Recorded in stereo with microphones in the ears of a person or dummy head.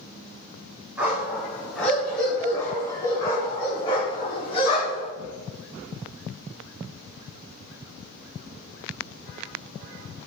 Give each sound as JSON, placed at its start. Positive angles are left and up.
{"t": 1.0, "sound": "a dog barking", "side_deg": -15, "distance_m": 3.5}